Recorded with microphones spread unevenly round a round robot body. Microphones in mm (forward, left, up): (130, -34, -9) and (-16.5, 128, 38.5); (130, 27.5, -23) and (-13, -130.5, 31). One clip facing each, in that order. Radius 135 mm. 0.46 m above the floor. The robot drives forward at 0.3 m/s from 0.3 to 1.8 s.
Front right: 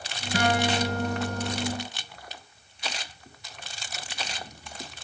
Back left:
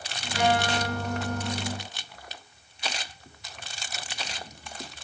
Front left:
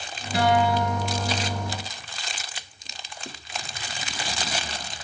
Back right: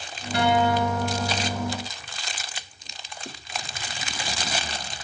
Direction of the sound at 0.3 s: 40° right.